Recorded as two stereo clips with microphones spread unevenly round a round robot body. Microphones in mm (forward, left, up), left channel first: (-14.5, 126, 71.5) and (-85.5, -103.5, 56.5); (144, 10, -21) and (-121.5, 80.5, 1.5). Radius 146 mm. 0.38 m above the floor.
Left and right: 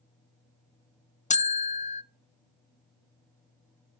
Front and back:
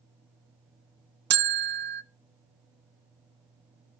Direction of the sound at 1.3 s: 125° left.